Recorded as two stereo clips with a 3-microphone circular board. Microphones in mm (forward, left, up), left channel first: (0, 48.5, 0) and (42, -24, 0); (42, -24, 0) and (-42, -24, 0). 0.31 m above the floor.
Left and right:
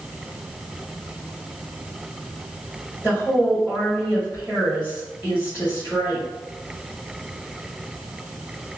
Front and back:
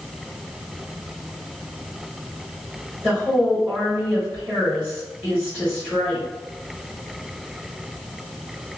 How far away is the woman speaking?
About 1.4 m.